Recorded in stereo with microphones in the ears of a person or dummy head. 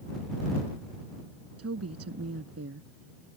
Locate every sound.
1.6 s a woman speaking: 90° right